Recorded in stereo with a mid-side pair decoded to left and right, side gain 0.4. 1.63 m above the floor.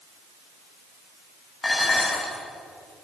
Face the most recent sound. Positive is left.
turn(degrees=25)